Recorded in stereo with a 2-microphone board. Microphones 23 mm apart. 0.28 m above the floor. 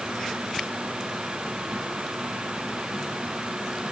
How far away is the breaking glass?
No breaking glass in this recording.